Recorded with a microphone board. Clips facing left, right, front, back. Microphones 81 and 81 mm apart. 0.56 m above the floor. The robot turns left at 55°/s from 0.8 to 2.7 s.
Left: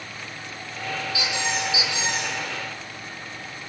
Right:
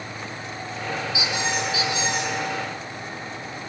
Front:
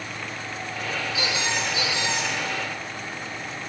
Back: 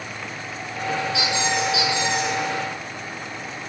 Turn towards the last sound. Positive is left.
turn(degrees=115)